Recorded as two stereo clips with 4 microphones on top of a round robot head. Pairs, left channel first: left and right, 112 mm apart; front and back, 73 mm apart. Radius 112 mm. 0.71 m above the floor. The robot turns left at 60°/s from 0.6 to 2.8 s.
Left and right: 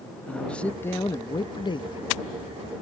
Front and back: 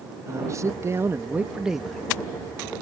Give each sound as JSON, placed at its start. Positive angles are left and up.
{"t": 0.3, "sound": "a man speaking", "azimuth_deg": 165}